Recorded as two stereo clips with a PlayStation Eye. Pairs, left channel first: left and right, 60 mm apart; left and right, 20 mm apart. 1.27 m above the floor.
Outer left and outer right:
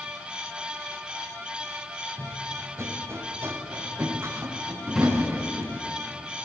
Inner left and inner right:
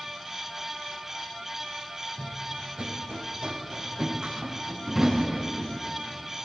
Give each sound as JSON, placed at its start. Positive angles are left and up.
{"t": 2.2, "sound": "running footsteps", "side_deg": -50, "distance_m": 2.5}
{"t": 4.8, "sound": "a drawer", "side_deg": 0, "distance_m": 7.0}